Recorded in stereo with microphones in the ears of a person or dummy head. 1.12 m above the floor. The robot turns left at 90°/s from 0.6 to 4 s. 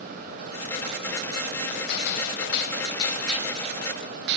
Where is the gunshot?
125° left, 2.5 m; by 4.4 s 65° right, 2.5 m.